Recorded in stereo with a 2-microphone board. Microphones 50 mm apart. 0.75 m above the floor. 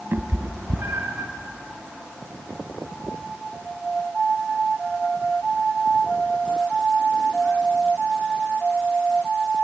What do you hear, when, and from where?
0.1 s a cat meowing: 50° right (ahead or behind), 1.5 m; by 1.3 s 75° right (ahead or behind), 2.5 m